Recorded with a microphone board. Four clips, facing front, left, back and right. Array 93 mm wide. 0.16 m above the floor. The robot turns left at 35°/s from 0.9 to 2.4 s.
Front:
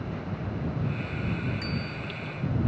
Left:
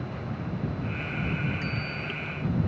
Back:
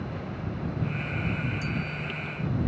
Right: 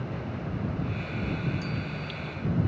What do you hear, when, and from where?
1.6 s a bicycle bell: 50° left; by 2.2 s 30° left